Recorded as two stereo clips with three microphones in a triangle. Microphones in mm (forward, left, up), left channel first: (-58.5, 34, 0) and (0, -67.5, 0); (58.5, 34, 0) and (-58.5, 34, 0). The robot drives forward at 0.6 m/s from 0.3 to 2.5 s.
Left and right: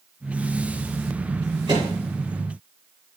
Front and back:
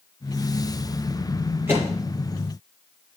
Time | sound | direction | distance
1.7 | a microwave | 110° right | 7.5 m